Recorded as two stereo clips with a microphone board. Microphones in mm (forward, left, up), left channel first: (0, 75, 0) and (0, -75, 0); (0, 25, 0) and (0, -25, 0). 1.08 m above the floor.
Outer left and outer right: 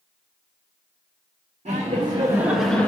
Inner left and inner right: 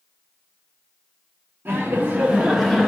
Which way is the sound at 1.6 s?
45° right (ahead or behind).